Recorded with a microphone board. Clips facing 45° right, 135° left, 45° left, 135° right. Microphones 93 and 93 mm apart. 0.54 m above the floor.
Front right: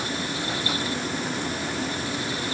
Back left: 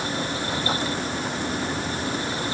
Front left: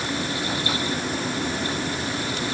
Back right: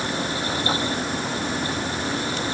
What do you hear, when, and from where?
Only background noise.